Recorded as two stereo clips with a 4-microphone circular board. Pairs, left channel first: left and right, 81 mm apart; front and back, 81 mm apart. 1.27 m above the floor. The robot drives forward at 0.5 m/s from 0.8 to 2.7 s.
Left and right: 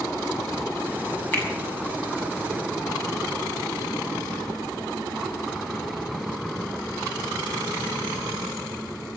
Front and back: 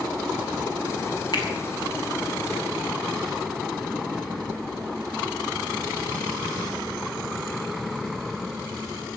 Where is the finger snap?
25° left, 7.5 m.